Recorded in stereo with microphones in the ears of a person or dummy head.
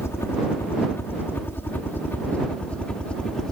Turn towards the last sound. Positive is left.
turn(degrees=5)  # may be behind; listen again after turning